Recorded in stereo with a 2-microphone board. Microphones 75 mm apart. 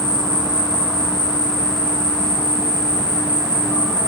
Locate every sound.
0.0 s an insect: 75° left (ahead or behind), 1.9 m